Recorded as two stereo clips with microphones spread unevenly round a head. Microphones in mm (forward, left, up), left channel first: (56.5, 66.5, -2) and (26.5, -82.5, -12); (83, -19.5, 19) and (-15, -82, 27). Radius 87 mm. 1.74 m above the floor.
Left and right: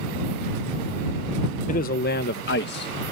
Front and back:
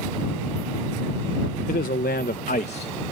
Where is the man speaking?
50° left; by 2.9 s 90° left.